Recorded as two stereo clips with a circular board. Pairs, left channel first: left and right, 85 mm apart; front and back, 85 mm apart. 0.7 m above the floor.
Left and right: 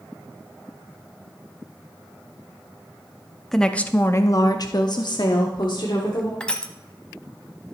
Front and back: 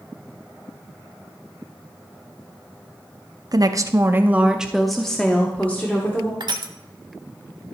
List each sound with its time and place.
3.5 s a woman speaking: 175° left, 0.7 m; by 6.3 s 65° left, 1.6 m
6.4 s crushing: 165° left, 0.9 m